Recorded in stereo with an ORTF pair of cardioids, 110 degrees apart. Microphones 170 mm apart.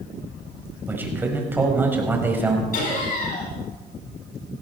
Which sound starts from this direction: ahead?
A man speaking, at 0.9 s.